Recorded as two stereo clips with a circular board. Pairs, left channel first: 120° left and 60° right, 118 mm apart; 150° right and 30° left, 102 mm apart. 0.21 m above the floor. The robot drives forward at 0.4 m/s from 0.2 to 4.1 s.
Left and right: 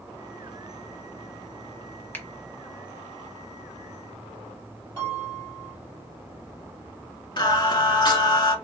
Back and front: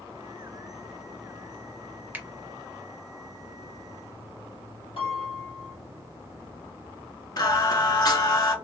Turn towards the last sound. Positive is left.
turn(degrees=165)